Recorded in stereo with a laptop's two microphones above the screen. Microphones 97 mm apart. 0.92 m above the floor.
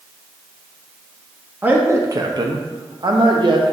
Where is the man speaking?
15° right (ahead or behind), 0.6 m; by 3.7 s 50° right (ahead or behind), 1.0 m.